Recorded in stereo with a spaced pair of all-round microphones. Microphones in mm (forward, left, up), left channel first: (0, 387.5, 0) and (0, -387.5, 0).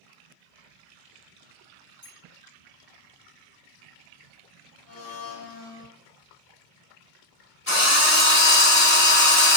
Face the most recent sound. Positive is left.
turn(degrees=15)  # may be behind; listen again after turning